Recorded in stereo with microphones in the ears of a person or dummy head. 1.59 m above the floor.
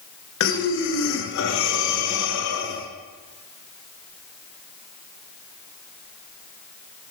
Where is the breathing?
70° left (ahead or behind), 0.8 m.